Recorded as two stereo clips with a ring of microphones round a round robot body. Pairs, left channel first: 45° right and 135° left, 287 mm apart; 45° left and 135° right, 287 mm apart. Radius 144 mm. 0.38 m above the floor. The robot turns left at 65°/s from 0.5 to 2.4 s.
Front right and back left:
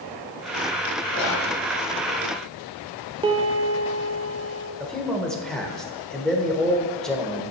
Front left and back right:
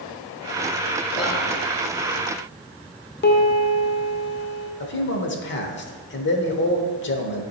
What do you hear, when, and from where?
1.1 s whispering: straight ahead, 1.8 m; by 1.5 s 30° right, 1.8 m
3.2 s a piano: 75° left, 0.7 m
4.8 s a man speaking: 40° left, 1.0 m